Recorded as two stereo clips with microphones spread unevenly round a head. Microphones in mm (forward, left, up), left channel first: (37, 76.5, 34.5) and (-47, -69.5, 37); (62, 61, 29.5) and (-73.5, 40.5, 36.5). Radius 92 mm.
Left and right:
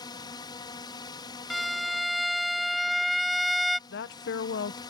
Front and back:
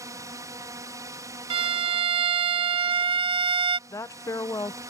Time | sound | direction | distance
0.0 | a drone | 125° left | ?
1.5 | a violin | 150° left | ?
3.9 | a woman speaking | 75° left | ?